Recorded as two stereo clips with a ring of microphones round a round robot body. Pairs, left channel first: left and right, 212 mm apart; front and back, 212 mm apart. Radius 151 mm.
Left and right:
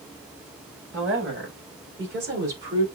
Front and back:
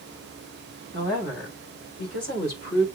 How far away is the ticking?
No ticking in this recording.